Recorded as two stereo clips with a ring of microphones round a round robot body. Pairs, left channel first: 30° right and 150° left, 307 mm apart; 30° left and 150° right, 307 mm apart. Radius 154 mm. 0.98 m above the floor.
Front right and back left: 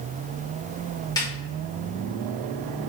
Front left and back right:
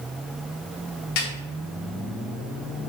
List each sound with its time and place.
1.2 s a snare drum: 50° left, 1.9 m